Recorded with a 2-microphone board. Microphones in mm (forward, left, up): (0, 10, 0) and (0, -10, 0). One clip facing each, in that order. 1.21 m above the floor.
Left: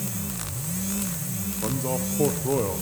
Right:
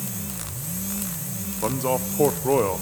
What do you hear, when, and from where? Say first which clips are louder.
1.6 s a man speaking: right 5 dB; 40° right (ahead or behind), 0.7 m